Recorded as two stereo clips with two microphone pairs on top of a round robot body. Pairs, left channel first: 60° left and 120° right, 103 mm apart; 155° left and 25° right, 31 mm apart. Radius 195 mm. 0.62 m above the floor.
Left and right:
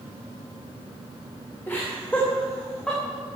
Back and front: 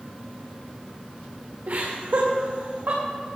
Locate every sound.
1.7 s laughter: 10° right, 3 m; by 3.0 s 25° right, 4.5 m